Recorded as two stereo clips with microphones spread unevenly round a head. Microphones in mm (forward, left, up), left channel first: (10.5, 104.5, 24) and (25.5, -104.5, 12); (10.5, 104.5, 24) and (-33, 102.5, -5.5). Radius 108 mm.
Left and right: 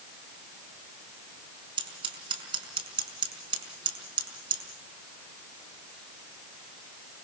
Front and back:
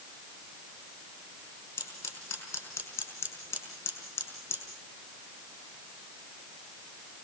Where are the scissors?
20° right, 5 m.